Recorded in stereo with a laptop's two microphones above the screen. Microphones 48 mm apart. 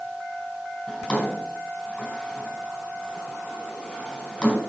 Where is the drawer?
25° left (ahead or behind), 5 m.